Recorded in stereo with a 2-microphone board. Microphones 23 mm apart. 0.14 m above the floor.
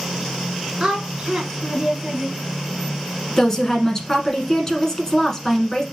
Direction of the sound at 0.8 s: 25° right (ahead or behind).